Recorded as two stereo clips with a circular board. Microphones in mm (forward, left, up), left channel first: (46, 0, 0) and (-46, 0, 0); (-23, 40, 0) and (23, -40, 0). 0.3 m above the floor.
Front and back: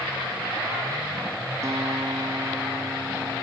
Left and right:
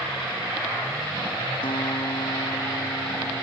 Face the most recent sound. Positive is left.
turn(degrees=125)